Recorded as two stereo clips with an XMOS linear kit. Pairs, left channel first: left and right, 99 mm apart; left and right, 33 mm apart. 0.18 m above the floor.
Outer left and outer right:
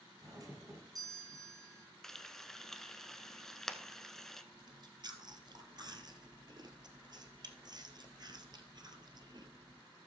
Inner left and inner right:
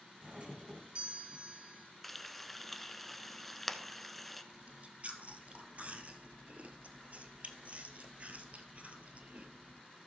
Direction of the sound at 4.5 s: 45° right (ahead or behind).